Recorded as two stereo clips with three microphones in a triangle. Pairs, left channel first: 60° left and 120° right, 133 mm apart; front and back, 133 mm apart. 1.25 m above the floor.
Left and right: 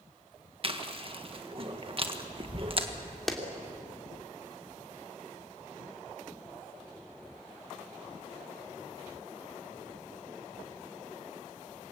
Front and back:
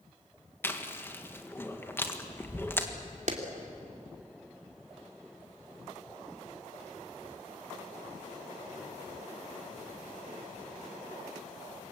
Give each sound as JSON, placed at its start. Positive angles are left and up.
{"t": 0.6, "sound": "chewing", "azimuth_deg": -70, "distance_m": 1.6}
{"t": 3.3, "sound": "a clap", "azimuth_deg": 150, "distance_m": 2.5}